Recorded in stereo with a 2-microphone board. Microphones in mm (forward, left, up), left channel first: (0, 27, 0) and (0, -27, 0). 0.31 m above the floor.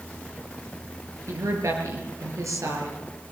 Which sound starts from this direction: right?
A woman speaking, at 1.3 s.